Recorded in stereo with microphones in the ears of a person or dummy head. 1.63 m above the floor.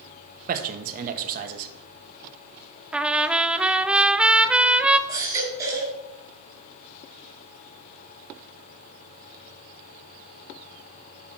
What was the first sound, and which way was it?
A man speaking, 45° right (ahead or behind).